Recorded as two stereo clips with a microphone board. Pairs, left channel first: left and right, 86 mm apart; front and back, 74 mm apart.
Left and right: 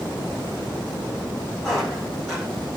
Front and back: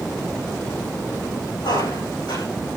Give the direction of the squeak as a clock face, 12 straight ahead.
12 o'clock.